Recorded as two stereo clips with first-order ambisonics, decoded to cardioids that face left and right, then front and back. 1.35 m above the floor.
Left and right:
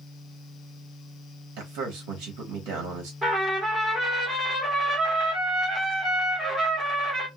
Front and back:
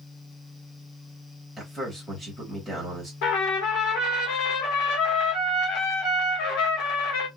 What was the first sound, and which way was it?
A man speaking, 80° right.